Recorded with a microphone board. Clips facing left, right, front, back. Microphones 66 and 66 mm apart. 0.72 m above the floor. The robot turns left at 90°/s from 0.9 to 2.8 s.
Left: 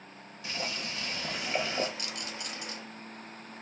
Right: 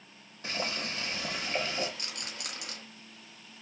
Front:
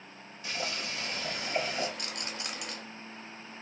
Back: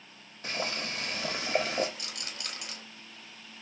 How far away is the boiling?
About 0.8 m.